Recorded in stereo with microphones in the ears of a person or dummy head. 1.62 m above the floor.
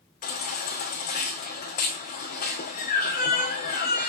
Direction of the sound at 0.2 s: 45° left (ahead or behind).